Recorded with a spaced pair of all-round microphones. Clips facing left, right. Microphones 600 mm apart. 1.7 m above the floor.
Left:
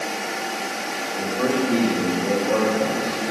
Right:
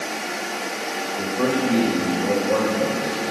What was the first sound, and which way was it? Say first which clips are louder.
A man speaking: even; 55° right (ahead or behind).